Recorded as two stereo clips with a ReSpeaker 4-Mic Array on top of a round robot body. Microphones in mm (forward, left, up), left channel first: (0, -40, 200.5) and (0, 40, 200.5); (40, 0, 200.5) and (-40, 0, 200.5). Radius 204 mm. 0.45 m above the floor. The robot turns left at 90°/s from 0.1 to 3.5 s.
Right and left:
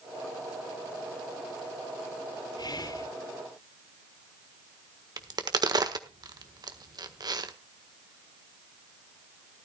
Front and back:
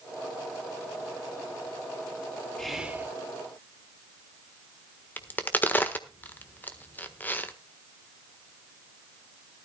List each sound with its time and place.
2.6 s whispering: 80° right, 2.5 m; by 3.1 s 125° right, 2.5 m
5.2 s a crack: 65° left, 1.5 m